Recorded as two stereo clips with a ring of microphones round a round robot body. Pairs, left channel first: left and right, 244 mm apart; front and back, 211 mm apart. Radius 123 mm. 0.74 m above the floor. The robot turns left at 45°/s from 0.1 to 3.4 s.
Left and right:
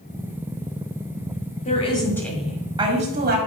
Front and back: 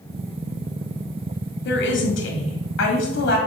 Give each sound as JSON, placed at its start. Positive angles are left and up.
{"t": 1.6, "sound": "a woman speaking", "azimuth_deg": 30, "distance_m": 1.8}